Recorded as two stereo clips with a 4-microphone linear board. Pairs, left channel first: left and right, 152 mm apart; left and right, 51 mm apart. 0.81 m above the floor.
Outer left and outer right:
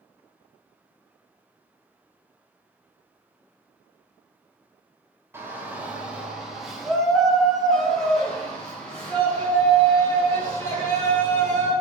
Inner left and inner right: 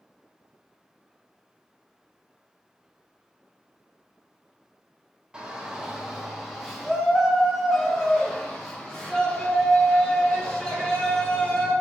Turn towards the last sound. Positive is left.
turn(degrees=15)  # may be behind; listen again after turning